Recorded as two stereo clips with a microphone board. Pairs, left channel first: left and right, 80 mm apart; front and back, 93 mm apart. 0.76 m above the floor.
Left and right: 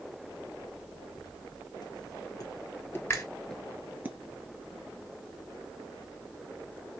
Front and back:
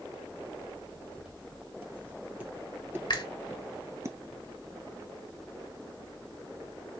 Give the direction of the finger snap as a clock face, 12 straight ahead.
11 o'clock.